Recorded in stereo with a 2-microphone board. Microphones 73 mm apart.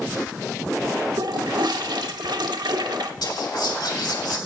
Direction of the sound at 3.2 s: 75° left (ahead or behind).